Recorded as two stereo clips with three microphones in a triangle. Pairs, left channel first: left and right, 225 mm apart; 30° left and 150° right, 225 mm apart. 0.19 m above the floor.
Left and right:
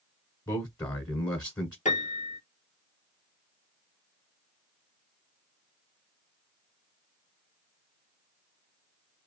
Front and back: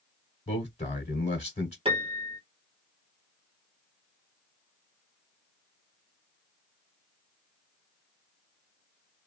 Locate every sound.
0.5 s a man speaking: 40° left, 1.1 m
1.9 s a piano: 150° left, 1.1 m